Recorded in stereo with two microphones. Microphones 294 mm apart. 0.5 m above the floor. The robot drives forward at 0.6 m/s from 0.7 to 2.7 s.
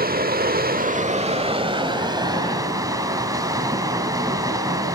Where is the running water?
30° right (ahead or behind), 0.7 m; by 4.9 s 10° right (ahead or behind), 1.8 m.